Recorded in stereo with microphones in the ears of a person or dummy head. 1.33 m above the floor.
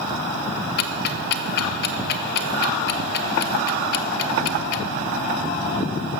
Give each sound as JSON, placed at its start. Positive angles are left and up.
{"t": 0.8, "sound": "ticking", "side_deg": 65, "distance_m": 0.7}